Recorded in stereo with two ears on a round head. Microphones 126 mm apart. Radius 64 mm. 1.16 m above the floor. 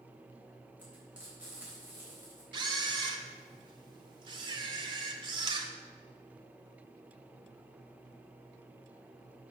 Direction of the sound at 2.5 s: 35° right (ahead or behind).